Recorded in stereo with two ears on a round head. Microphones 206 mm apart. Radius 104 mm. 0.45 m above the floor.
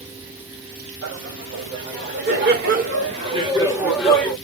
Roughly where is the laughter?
Right.